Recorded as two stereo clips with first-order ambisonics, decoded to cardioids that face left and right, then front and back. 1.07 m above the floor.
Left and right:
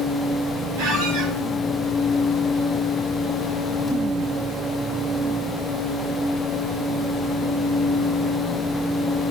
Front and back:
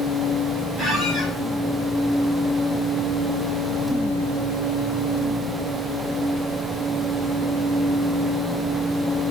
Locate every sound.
0.8 s a squeak: 85° right, 2 m